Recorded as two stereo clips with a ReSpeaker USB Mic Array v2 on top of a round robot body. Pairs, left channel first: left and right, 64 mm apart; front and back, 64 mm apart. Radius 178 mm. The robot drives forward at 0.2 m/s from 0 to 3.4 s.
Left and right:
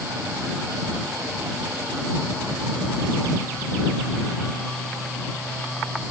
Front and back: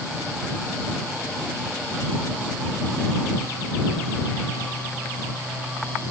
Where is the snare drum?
No snare drum in this recording.